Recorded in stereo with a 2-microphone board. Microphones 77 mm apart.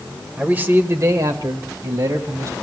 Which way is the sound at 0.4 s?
15° right (ahead or behind).